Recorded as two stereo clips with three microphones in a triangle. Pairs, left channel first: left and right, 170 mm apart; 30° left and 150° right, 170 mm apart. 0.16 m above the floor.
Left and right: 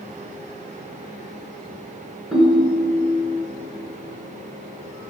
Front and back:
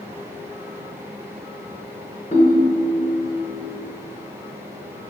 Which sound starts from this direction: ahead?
A ringtone, at 2.3 s.